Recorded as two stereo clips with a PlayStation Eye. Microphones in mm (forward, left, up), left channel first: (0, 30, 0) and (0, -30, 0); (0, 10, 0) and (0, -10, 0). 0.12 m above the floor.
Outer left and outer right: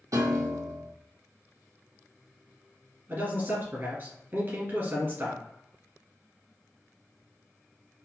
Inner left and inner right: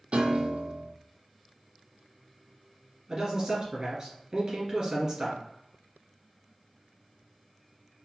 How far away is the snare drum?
I don't hear a snare drum.